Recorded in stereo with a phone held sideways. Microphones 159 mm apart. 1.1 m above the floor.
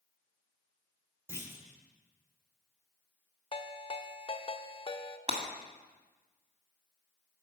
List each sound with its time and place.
1.3 s a clunk: 15° right (ahead or behind), 2 m
3.5 s a ringtone: 35° left (ahead or behind), 0.6 m
5.3 s breaking glass: 40° right (ahead or behind), 2.0 m